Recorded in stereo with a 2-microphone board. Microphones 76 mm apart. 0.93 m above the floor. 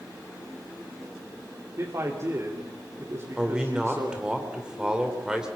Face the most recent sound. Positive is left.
turn(degrees=-10)  # may be behind; listen again after turning